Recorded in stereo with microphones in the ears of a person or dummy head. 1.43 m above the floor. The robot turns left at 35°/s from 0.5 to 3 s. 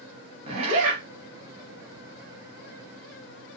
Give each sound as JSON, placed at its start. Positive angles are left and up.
{"t": 0.5, "sound": "a zipper", "side_deg": -40, "distance_m": 0.9}